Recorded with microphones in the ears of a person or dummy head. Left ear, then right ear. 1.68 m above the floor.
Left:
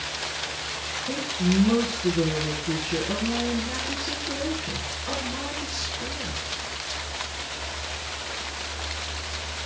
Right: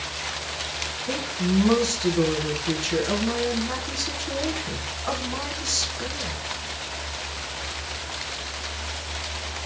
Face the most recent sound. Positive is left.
turn(degrees=-60)  # may be behind; listen again after turning